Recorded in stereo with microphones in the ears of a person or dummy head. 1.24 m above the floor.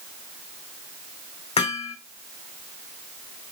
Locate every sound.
1.6 s hammering: 35° left (ahead or behind), 3.5 m